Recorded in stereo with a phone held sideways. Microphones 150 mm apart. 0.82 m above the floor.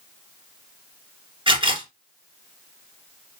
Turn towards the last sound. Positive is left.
turn(degrees=-35)  # may be behind; listen again after turning